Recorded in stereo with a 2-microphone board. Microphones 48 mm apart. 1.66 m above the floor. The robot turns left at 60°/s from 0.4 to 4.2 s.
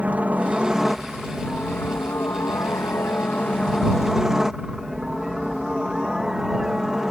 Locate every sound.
0.0 s a helicopter: 140° right; by 7.1 s 10° right